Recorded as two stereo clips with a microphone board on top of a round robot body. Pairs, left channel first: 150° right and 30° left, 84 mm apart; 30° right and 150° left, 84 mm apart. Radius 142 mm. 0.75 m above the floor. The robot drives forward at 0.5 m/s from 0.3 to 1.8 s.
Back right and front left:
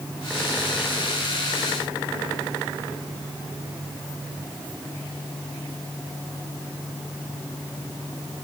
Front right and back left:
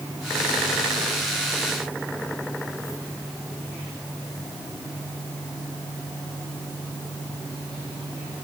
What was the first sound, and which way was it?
Only background noise.